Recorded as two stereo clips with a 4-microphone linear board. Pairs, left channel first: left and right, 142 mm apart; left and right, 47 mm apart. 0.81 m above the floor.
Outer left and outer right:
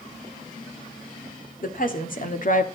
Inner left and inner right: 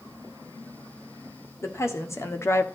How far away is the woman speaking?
About 2 m.